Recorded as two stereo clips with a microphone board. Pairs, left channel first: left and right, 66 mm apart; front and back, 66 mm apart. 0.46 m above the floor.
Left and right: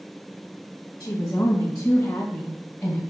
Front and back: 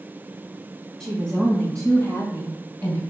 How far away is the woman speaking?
About 2.5 m.